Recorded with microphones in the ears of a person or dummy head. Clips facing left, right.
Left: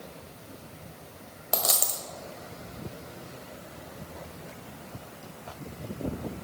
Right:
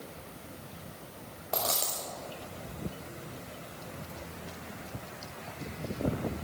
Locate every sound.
1.5 s a dropped coin: 15° left (ahead or behind), 1.1 m